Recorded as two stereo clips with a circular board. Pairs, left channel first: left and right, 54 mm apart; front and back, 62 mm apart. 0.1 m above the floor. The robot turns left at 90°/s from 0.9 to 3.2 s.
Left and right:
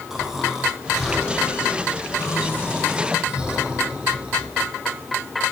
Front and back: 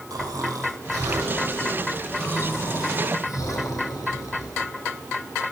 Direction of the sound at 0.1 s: 170° right.